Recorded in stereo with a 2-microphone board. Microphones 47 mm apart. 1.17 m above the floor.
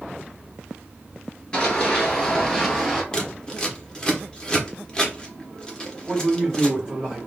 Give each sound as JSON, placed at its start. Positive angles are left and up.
{"t": 1.5, "sound": "running footsteps", "side_deg": 20, "distance_m": 1.2}
{"t": 3.1, "sound": "scissors", "side_deg": 20, "distance_m": 0.8}
{"t": 6.1, "sound": "a man speaking", "side_deg": -15, "distance_m": 2.0}